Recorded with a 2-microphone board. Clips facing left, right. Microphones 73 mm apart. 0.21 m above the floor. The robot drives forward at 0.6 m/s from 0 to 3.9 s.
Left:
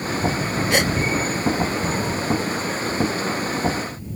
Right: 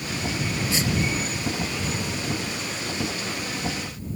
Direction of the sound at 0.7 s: 65° left (ahead or behind).